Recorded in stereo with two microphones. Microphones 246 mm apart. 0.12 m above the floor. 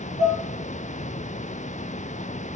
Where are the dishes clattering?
30° right (ahead or behind), 1.2 m.